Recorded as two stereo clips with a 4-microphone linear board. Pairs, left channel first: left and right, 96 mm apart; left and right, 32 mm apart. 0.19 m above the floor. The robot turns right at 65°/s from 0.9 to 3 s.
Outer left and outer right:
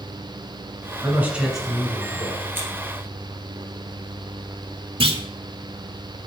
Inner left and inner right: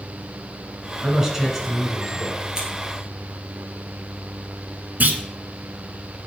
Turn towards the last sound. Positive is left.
turn(degrees=-65)  # may be behind; listen again after turning